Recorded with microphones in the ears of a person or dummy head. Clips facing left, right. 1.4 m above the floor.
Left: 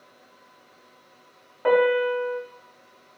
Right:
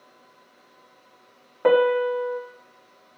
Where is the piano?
50° right (ahead or behind), 0.7 m.